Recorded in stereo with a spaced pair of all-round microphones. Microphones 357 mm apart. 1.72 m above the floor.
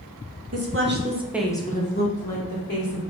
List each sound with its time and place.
0.5 s a woman speaking: 45° right (ahead or behind), 1.7 m; by 3.0 s 65° left (ahead or behind), 2.5 m